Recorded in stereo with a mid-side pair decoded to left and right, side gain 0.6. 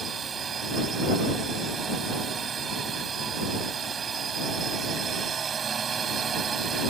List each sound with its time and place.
0.0 s a drone: 35° right